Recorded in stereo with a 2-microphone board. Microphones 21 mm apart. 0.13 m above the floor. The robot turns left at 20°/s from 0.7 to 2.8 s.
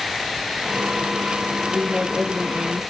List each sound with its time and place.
1.7 s a woman speaking: 15° right (ahead or behind), 2.5 m; by 2.8 s 30° right (ahead or behind), 2.5 m